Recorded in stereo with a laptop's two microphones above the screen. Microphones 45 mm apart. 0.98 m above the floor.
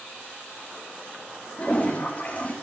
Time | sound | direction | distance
1.6 | a toilet flushing | 40° left (ahead or behind) | 4 m